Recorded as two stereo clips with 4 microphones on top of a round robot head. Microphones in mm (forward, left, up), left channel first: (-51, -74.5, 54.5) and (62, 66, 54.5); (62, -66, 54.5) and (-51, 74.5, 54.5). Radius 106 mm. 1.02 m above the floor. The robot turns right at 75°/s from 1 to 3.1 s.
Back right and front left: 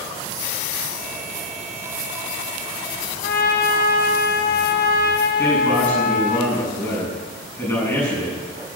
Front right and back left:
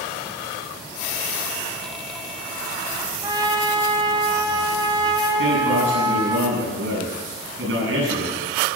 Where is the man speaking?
150° left, 8.5 m.